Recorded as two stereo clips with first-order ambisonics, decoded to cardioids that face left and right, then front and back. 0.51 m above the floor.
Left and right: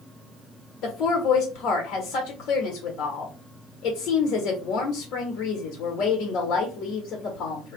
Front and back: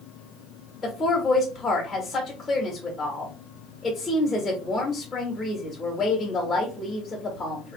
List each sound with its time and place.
0.8 s a woman speaking: 85° left, 1.3 m